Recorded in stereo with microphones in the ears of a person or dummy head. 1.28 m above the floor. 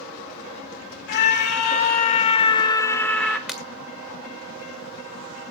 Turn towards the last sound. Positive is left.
turn(degrees=0)  # may be behind; listen again after turning